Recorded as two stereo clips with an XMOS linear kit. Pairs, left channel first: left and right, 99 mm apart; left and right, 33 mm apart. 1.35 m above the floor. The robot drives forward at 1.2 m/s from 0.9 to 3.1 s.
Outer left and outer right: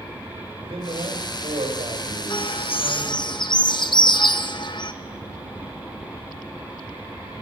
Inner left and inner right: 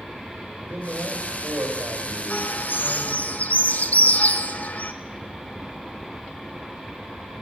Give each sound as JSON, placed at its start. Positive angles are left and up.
{"t": 0.6, "sound": "a man speaking", "side_deg": -70, "distance_m": 6.0}
{"t": 2.3, "sound": "a bird", "side_deg": 50, "distance_m": 0.9}